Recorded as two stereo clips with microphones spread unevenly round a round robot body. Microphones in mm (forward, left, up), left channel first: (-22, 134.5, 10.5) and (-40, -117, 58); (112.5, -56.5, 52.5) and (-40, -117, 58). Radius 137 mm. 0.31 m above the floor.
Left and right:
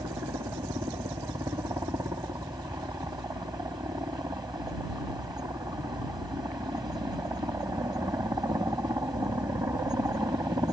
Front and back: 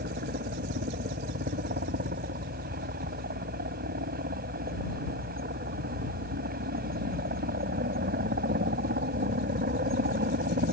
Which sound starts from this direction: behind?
A helicopter, at 0.0 s.